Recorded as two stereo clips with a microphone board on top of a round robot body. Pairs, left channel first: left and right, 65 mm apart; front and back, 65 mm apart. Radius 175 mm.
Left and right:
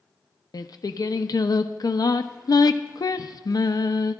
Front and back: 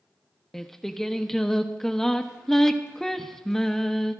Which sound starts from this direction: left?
Singing, at 0.5 s.